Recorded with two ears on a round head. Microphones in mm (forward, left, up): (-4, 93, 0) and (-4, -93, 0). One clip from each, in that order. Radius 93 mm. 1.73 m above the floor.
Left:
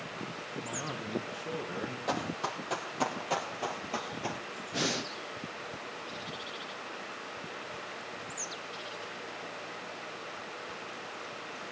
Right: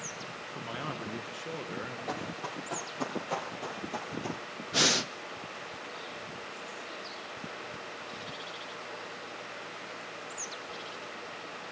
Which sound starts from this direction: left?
Running footsteps, at 2.1 s.